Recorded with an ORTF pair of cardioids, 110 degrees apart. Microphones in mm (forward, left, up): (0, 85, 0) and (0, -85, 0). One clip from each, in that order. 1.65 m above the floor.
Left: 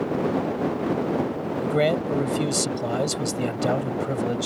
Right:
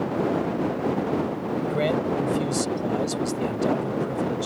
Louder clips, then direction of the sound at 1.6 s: Left 3 dB; 40° left.